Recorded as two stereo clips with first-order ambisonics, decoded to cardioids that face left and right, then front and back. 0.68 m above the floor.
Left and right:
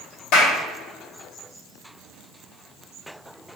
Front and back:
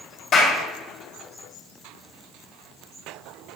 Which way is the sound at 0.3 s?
60° left.